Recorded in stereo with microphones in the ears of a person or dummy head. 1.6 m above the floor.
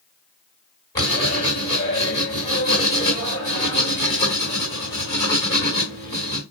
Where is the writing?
25° left (ahead or behind), 3.5 m.